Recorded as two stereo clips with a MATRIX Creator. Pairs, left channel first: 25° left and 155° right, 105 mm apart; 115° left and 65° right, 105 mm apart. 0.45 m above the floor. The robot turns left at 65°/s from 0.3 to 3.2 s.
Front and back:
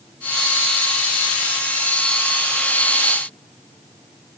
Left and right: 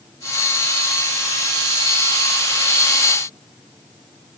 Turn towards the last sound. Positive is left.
No sound to turn to.